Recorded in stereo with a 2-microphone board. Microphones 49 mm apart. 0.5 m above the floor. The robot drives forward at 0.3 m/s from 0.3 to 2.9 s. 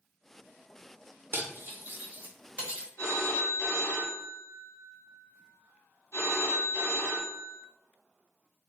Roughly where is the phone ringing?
Left.